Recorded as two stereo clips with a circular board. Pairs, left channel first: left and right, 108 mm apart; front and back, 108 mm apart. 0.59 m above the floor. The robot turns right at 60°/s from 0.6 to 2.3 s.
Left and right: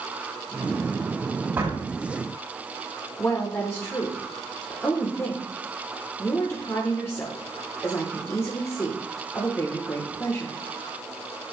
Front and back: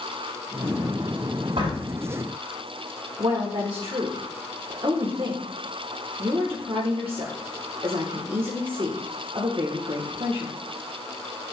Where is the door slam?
155° right, 3.5 m; by 1.8 s 140° right, 3.5 m.